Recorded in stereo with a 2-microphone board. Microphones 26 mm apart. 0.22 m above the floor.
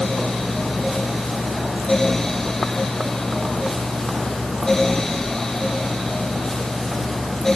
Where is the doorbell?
I don't hear a doorbell.